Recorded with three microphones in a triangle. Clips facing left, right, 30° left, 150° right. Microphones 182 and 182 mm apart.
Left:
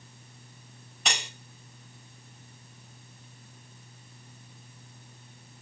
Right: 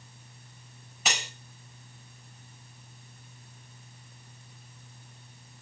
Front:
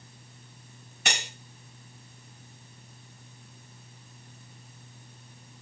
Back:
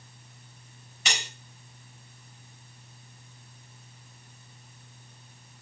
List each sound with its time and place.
1.1 s cutlery clinking: 5° right, 1.6 m